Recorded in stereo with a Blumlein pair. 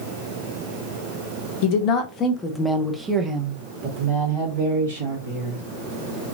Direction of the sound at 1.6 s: 45° left.